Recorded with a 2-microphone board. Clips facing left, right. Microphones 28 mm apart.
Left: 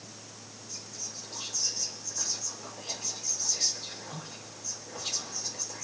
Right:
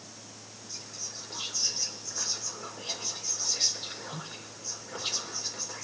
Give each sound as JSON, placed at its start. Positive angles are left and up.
{"t": 0.7, "sound": "whispering", "side_deg": -55, "distance_m": 3.0}